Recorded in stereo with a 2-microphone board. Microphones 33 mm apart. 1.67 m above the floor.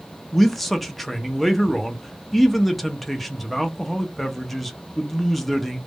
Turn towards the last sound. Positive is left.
turn(degrees=5)  # may be behind; listen again after turning